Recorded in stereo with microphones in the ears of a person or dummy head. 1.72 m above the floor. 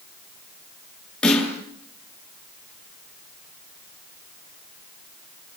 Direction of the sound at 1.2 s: 5° left (ahead or behind).